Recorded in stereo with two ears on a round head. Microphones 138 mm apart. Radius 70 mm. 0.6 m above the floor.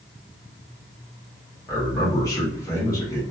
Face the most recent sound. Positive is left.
turn(degrees=20)  # may be behind; listen again after turning